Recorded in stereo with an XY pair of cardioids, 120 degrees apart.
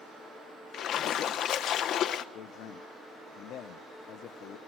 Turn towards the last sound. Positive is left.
turn(degrees=65)